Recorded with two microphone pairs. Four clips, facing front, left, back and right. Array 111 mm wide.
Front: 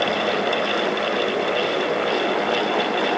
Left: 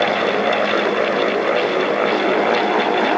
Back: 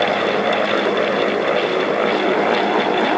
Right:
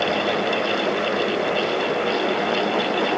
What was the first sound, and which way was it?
Only background noise.